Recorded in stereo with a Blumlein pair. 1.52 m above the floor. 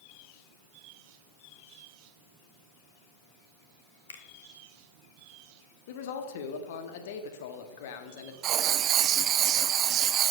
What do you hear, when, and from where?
4.1 s a finger snap: 65° left, 0.9 m
5.9 s a man speaking: 55° left, 0.9 m
8.4 s writing: 30° right, 0.6 m